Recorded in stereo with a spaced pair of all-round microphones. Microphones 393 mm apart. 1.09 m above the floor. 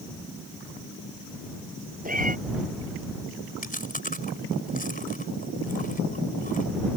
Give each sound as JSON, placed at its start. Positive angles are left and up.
{"t": 2.0, "sound": "a cat meowing", "side_deg": -20}
{"t": 3.6, "sound": "chewing", "side_deg": 20}